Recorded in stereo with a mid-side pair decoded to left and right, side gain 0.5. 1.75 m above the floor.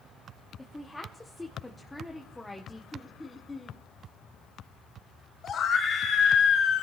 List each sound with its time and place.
0.6 s a woman speaking: 10° left, 1.3 m
2.9 s laughter: 15° left, 1.5 m
5.4 s a scream: 50° left, 1.7 m